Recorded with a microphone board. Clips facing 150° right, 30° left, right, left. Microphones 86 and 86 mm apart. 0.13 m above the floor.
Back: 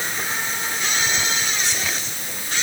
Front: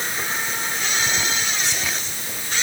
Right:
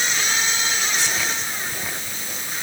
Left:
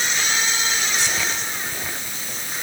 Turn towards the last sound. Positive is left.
No sound to turn to.